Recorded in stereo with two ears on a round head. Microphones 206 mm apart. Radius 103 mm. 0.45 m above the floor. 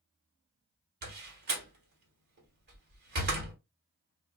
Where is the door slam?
45° right (ahead or behind), 1.3 m.